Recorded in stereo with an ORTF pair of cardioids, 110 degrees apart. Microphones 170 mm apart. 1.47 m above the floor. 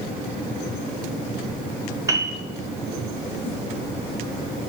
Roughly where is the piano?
Ahead.